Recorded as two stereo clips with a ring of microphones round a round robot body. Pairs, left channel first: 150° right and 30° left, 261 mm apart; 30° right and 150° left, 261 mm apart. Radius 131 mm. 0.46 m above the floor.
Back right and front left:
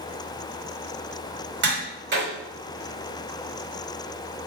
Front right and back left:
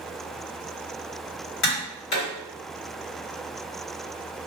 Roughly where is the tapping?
Ahead.